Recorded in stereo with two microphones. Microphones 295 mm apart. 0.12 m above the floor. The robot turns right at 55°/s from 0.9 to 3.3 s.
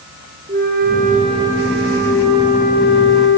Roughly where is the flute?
Ahead right.